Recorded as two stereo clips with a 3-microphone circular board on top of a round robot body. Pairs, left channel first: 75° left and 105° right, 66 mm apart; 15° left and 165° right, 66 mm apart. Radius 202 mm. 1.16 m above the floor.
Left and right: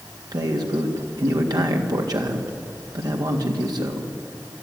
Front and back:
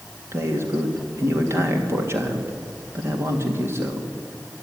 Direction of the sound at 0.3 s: 115° right.